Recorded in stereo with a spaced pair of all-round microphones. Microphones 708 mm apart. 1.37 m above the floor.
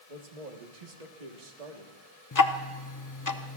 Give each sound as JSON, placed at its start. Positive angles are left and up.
{"t": 0.1, "sound": "a man speaking", "side_deg": -70, "distance_m": 1.5}
{"t": 2.3, "sound": "ticking", "side_deg": 30, "distance_m": 0.6}